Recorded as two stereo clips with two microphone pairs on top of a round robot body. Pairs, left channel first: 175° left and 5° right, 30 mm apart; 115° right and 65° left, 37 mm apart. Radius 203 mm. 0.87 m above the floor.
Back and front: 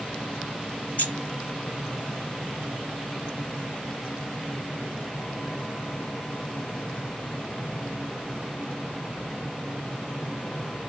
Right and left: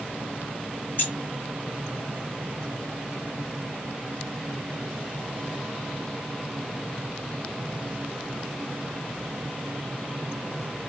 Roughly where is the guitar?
I don't hear a guitar.